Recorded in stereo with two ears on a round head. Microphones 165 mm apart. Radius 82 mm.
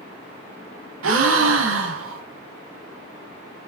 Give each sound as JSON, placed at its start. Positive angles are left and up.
{"t": 1.0, "sound": "a gasp", "side_deg": -80, "distance_m": 1.0}